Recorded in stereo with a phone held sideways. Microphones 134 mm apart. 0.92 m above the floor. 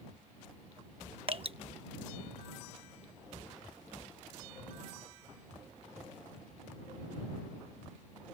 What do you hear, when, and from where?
1.3 s dripping: 45° right (ahead or behind)